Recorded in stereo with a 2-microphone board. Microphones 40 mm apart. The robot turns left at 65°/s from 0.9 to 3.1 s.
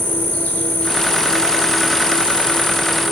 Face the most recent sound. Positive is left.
turn(degrees=-85)